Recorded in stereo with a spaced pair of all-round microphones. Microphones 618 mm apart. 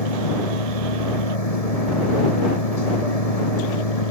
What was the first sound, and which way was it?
A machine running, 70° left (ahead or behind).